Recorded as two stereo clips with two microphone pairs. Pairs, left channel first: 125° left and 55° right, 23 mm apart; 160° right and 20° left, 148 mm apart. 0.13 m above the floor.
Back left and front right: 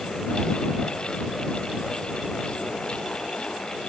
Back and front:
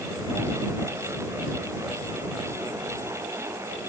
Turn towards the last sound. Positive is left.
No sound to turn to.